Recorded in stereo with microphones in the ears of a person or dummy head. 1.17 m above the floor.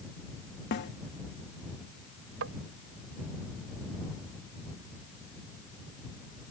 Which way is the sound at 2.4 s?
65° right (ahead or behind).